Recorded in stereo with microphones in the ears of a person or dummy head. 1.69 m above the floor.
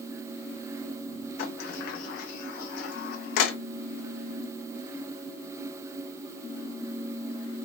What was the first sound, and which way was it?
A sliding door, 55° left (ahead or behind).